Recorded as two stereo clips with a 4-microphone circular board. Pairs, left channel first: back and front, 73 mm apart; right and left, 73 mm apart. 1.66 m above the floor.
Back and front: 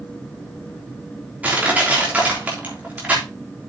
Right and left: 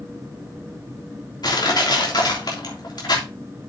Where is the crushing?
70° right, 3.5 m.